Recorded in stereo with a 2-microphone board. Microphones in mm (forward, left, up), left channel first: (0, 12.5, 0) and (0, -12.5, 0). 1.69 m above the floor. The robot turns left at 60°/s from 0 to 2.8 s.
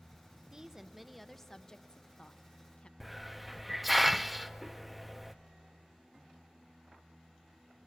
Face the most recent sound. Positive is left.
turn(degrees=-5)  # may be behind; listen again after turning